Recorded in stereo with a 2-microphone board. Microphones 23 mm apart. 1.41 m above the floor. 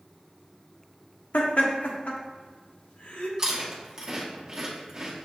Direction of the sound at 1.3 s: 75° left (ahead or behind).